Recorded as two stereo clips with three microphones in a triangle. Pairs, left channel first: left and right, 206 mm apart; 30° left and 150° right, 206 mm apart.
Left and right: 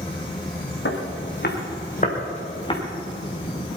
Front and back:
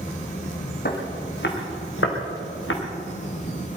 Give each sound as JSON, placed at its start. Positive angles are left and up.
{"t": 0.8, "sound": "footsteps", "azimuth_deg": 70, "distance_m": 4.0}